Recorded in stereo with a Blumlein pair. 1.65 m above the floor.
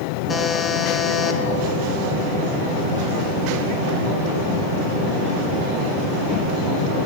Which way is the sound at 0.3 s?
15° left.